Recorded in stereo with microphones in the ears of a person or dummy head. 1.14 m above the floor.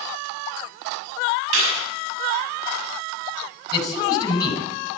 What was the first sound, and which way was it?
A clap, 85° right.